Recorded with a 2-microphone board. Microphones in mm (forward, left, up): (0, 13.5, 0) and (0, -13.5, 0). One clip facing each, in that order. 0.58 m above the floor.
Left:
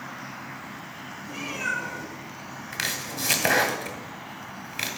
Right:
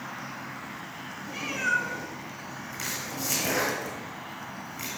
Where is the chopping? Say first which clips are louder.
Left 5 dB; 75° left (ahead or behind), 1.3 m.